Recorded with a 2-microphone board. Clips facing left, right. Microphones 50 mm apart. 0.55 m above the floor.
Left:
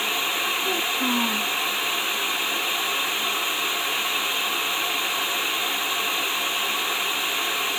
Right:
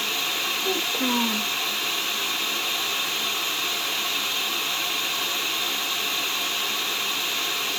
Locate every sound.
0.6 s a child speaking: 20° right (ahead or behind), 3 m